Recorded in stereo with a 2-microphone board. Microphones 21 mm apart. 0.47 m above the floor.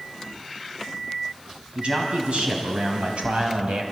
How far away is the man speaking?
About 3.5 m.